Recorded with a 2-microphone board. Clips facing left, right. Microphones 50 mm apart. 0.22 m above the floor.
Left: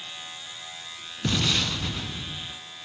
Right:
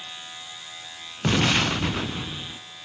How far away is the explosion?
About 0.6 m.